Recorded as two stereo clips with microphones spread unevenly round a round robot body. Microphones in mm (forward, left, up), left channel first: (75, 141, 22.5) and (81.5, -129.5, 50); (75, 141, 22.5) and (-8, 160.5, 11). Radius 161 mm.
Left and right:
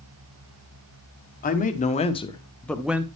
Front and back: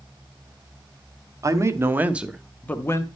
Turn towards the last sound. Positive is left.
turn(degrees=-5)